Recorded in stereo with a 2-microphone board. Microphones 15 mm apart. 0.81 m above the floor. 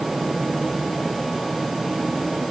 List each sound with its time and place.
Only background noise.